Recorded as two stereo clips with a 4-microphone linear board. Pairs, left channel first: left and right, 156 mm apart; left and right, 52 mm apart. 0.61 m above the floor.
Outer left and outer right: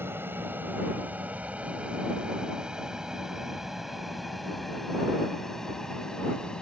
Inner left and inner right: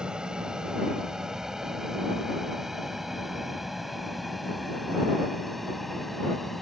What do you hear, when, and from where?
0.0 s an aircraft: 15° right (ahead or behind); by 6.6 s 5° left (ahead or behind)